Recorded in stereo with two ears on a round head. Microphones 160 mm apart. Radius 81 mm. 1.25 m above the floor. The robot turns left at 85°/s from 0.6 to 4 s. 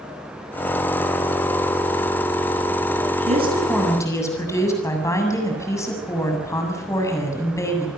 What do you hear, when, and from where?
3.3 s a woman speaking: 135° right, 7.5 m; by 7.9 s 165° left, 7.5 m